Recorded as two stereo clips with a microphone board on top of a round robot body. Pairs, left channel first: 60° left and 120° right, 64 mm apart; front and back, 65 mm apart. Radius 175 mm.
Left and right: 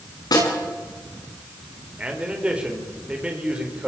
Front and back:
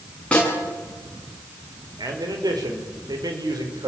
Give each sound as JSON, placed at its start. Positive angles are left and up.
{"t": 0.3, "sound": "a snare drum", "azimuth_deg": 75, "distance_m": 8.5}
{"t": 2.0, "sound": "a man speaking", "azimuth_deg": 165, "distance_m": 5.0}